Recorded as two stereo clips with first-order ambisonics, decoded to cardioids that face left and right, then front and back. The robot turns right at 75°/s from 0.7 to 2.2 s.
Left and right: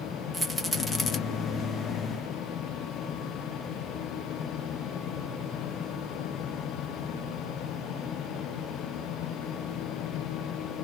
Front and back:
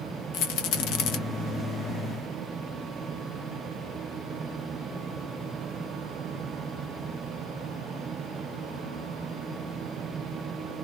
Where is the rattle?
5° right, 0.8 m; by 1.2 s 30° left, 0.8 m.